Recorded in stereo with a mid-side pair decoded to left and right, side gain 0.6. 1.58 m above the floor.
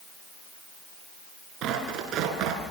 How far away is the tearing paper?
About 6 m.